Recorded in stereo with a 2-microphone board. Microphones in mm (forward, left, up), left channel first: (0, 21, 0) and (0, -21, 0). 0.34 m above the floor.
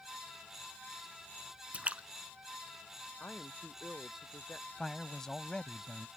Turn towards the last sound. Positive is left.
turn(degrees=10)  # may be behind; listen again after turning